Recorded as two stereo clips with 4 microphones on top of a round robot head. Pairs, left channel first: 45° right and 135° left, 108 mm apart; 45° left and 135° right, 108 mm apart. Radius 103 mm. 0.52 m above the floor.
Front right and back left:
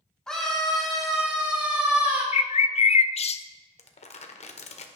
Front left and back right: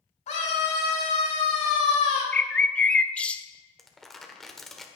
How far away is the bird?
About 0.7 m.